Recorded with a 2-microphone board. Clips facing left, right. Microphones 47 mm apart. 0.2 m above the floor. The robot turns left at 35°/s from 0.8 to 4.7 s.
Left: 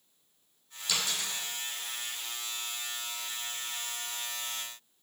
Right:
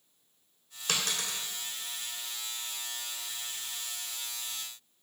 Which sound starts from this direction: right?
A dropped coin, at 0.9 s.